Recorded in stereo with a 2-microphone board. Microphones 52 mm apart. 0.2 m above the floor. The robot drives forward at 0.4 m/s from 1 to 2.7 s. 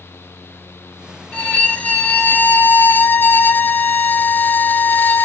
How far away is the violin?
About 0.8 m.